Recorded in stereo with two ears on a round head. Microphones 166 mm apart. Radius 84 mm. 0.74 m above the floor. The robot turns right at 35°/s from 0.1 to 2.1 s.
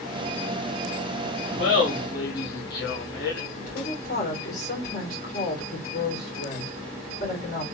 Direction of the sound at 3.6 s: 50° left (ahead or behind).